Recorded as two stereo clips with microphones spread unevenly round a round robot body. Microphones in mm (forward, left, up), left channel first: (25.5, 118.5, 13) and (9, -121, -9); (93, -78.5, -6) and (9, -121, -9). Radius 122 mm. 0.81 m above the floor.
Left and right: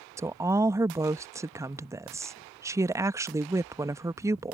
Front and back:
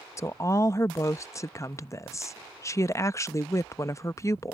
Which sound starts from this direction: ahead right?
A woman speaking, at 0.2 s.